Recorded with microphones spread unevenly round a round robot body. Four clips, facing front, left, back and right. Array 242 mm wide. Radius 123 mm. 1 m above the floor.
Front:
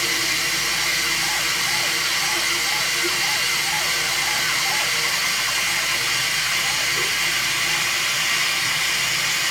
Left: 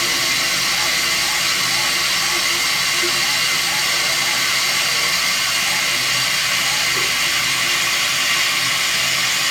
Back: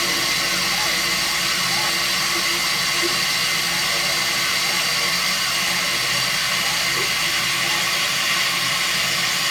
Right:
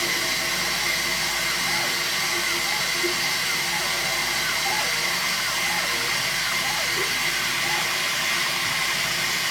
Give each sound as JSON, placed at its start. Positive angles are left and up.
{"t": 0.0, "sound": "running water", "azimuth_deg": 120, "distance_m": 1.3}